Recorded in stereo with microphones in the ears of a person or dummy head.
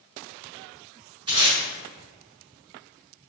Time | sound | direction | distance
1.3 | tape being pulled | 25° right (ahead or behind) | 1.5 m